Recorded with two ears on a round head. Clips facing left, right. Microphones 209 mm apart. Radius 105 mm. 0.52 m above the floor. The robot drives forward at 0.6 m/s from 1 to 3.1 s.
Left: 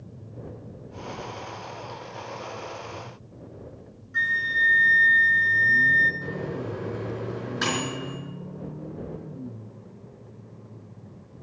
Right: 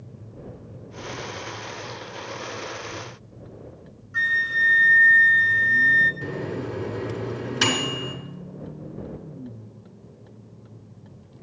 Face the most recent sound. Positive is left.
turn(degrees=-45)  # may be behind; listen again after turning